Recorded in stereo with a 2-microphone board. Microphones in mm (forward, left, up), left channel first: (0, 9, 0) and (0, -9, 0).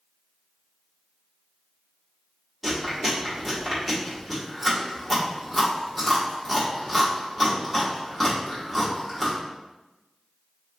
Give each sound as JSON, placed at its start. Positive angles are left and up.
{"t": 2.6, "sound": "chewing", "side_deg": 10, "distance_m": 1.3}